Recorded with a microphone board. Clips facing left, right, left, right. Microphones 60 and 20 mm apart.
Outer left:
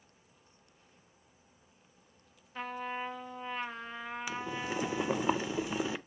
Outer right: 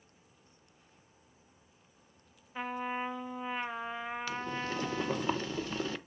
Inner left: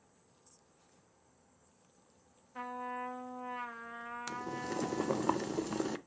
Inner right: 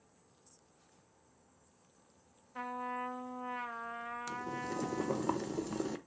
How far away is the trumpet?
About 0.8 m.